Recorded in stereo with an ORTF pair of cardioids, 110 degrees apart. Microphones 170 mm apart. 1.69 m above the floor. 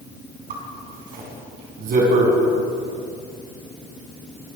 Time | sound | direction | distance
0.5 | a zipper | 60° right | 5 m